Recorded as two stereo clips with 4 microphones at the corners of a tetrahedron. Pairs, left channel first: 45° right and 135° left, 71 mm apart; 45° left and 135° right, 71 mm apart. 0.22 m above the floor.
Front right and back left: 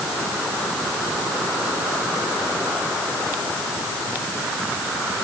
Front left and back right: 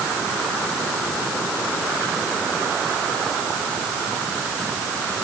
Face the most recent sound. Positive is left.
No sound to turn to.